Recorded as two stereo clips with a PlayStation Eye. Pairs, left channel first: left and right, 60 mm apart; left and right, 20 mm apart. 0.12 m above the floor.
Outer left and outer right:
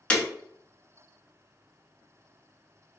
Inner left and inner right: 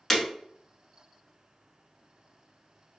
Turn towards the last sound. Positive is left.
turn(degrees=20)  # may be behind; listen again after turning